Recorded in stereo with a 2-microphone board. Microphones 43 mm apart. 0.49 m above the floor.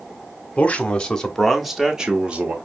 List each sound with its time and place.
0.6 s a man speaking: 30° left (ahead or behind), 1.1 m; by 2.5 s 35° right (ahead or behind), 1.0 m